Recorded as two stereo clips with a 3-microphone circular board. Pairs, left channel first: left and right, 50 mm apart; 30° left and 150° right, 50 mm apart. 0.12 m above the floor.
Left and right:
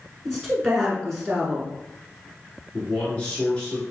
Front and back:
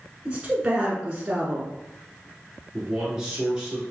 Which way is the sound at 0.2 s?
170° left.